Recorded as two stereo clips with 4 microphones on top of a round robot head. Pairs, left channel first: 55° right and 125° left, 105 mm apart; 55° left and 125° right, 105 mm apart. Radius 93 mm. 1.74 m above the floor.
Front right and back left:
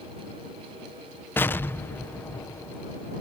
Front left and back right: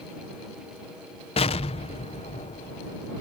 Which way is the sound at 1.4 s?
20° left.